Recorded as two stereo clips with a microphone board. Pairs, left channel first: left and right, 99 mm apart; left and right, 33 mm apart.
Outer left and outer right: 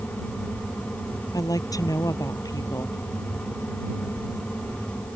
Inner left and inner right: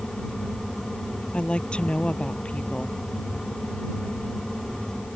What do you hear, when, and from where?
1.3 s a woman speaking: 35° left (ahead or behind)